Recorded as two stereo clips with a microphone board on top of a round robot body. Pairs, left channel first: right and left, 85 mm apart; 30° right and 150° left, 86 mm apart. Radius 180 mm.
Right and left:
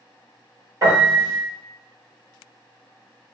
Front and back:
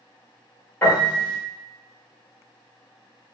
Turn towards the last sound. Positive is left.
turn(degrees=40)